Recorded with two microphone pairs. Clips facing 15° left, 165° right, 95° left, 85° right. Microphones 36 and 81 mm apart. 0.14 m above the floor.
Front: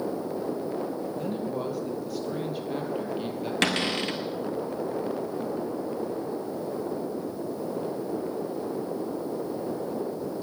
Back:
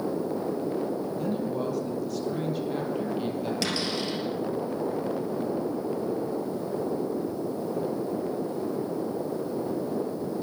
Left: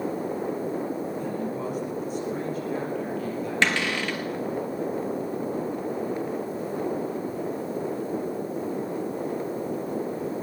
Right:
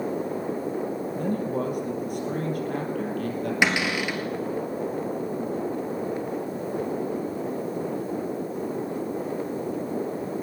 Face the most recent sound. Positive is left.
turn(degrees=-10)